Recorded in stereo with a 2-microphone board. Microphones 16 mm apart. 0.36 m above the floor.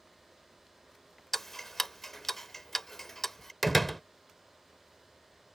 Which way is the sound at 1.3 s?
25° left (ahead or behind).